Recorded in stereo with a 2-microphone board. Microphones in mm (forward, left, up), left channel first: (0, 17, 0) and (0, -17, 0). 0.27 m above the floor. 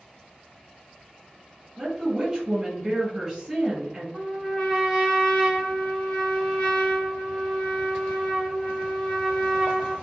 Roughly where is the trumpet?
Centre.